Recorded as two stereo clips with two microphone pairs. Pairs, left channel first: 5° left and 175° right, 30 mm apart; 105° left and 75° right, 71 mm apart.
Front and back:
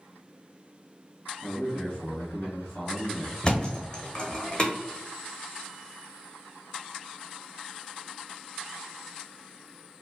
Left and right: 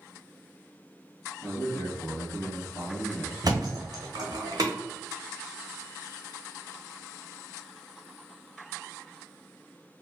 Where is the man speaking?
50° left, 1.7 m.